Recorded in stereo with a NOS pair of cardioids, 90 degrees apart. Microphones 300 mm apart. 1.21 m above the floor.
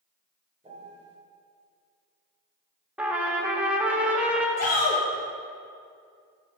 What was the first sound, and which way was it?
A piano, 20° right.